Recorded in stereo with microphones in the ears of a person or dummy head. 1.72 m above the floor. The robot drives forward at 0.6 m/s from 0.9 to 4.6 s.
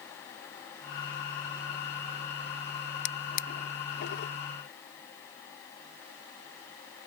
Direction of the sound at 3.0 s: 65° left (ahead or behind).